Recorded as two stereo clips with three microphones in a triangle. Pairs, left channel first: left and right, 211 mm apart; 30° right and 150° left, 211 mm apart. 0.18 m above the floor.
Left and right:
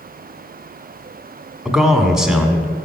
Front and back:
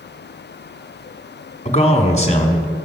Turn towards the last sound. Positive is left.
turn(degrees=-5)